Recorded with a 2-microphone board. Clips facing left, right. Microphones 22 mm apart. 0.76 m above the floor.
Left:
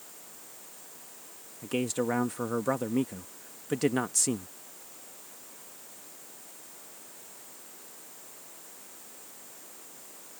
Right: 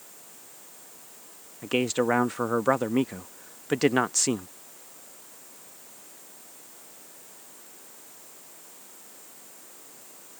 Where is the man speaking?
30° right (ahead or behind).